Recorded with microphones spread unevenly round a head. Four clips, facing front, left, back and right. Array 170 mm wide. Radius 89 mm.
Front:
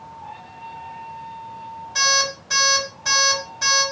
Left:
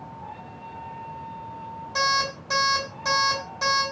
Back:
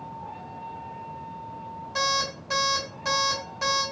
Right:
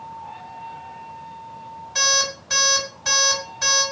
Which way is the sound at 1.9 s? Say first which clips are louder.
Left 1 dB, front 4 dB; 100° left.